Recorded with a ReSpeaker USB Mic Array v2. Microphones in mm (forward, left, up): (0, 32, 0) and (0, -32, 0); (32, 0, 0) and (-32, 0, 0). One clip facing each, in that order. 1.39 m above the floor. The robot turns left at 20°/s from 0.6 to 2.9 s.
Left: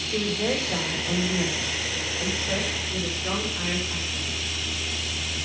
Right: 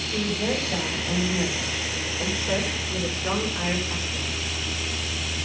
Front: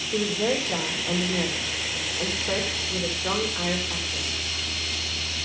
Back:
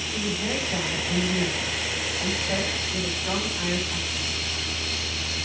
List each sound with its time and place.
0.1 s a woman speaking: 25° left, 4 m; by 4.3 s 25° right, 4 m